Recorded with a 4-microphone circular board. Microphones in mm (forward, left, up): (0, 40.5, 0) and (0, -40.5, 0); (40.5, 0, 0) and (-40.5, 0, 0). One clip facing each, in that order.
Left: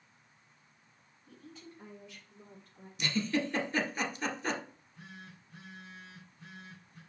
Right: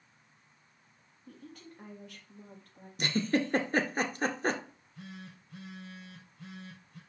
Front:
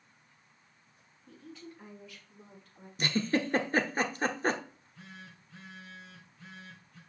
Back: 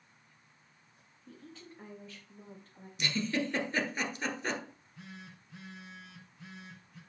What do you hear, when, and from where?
1.3 s a woman speaking: 120° right, 3.5 m; by 2.9 s 125° right, 4.5 m
3.0 s a giggle: 50° right, 1.1 m
4.7 s a phone buzzing: 105° right, 3.5 m